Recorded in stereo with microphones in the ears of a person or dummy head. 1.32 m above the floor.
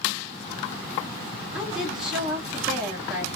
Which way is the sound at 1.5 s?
5° right (ahead or behind).